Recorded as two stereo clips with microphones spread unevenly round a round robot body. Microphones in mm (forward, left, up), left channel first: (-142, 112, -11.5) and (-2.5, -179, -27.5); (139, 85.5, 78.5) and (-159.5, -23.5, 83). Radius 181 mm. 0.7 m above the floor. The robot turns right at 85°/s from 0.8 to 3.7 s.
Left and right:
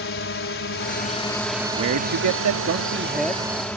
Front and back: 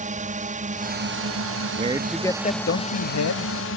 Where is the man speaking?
100° right; by 3.5 s 50° left.